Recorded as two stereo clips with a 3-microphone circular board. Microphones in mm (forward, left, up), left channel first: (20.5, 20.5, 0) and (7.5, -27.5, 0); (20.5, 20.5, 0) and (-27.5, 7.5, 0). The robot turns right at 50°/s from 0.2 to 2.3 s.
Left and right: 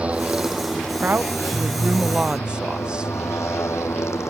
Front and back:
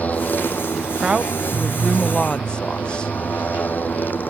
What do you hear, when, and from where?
0.0 s a motorcycle: 40° right; by 4.3 s 65° left
1.0 s a woman speaking: 105° right; by 3.1 s 40° right